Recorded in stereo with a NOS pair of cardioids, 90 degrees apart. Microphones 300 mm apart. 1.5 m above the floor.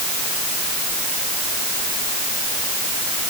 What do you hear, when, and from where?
Only background noise.